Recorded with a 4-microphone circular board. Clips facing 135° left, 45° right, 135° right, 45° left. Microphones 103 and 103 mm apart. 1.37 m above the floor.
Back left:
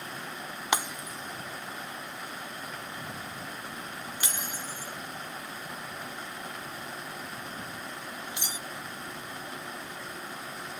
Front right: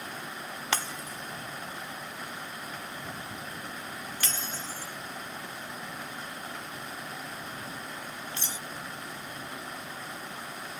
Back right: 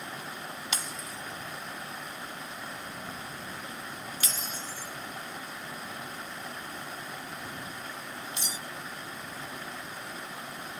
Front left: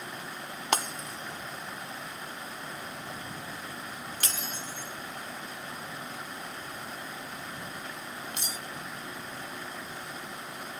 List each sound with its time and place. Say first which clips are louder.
0.7 s breaking glass: back left 3 dB, front left 12 dB; 65° left